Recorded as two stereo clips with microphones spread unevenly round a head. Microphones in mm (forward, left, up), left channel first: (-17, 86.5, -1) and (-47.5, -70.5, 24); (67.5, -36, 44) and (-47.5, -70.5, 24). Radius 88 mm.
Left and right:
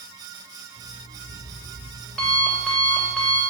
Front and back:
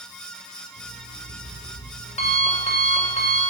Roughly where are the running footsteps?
No running footsteps in this recording.